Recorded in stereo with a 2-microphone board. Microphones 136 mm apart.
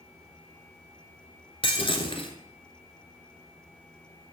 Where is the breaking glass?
40° left (ahead or behind), 1.3 m.